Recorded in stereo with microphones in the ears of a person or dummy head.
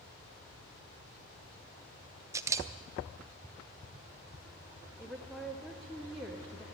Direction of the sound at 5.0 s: 5° left (ahead or behind).